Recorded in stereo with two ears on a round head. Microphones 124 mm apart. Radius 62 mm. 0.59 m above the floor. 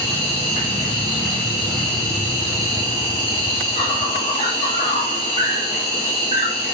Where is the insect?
40° left (ahead or behind), 1.8 m.